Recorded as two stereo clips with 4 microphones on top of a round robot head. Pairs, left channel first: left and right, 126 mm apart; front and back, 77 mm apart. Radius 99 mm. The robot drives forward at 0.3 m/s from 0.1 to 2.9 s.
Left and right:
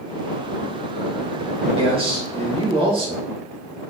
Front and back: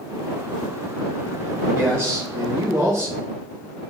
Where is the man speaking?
125° right, 3 m; by 3.3 s 130° right, 3.5 m.